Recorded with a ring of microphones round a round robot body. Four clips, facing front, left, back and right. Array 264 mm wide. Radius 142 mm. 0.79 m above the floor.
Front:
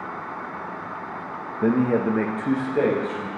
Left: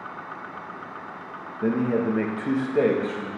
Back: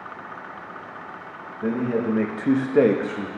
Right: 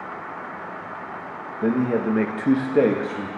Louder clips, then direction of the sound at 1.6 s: Right 2 dB, front 3 dB; 10° right.